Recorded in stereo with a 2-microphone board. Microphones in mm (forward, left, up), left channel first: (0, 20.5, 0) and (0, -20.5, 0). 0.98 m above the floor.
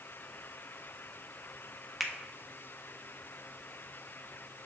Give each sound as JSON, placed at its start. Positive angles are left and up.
{"t": 2.0, "sound": "a finger snap", "side_deg": 0, "distance_m": 0.7}